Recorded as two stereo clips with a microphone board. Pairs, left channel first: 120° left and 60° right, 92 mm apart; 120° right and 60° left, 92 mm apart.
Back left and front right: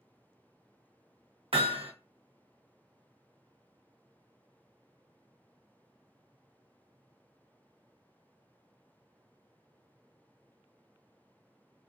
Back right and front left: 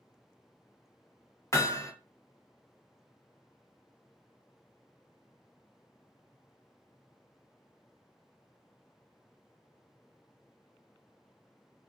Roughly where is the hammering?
Ahead right.